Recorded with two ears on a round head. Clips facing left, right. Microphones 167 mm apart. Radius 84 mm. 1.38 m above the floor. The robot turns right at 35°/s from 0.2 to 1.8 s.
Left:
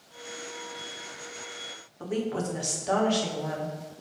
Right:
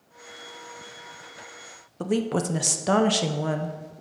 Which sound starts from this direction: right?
A woman speaking, at 2.0 s.